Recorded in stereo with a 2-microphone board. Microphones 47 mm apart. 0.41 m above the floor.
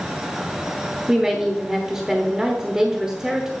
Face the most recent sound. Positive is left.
turn(degrees=-10)  # may be behind; listen again after turning